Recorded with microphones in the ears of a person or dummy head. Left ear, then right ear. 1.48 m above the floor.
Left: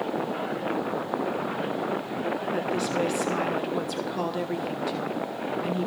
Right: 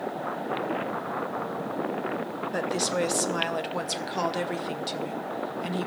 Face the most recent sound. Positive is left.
turn(degrees=-10)  # may be behind; listen again after turning